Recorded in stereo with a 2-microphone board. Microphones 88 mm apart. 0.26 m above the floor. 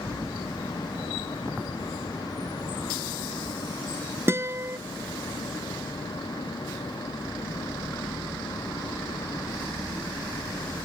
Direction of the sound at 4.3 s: 30° right (ahead or behind).